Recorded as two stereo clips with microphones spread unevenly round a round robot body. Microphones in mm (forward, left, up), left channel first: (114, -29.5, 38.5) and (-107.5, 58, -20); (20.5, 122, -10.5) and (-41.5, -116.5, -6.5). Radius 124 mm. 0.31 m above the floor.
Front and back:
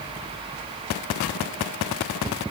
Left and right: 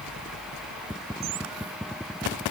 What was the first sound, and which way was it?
Only background noise.